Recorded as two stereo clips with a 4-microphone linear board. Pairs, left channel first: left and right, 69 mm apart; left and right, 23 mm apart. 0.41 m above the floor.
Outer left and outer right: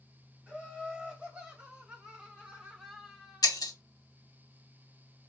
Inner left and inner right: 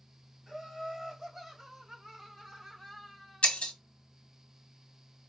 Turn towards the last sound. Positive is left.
turn(degrees=70)  # may be behind; listen again after turning